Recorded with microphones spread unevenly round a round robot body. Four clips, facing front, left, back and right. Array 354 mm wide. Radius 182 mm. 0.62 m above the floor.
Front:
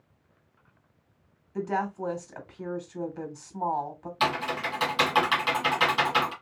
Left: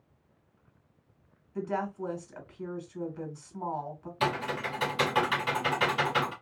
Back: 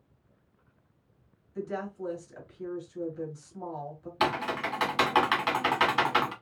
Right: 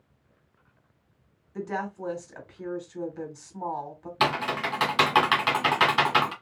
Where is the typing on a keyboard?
100° right, 1.5 m.